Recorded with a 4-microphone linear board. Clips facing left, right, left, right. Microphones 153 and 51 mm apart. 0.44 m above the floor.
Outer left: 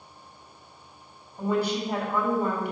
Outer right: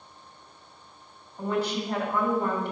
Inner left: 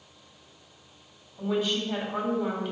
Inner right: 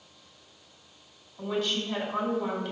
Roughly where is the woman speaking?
Centre.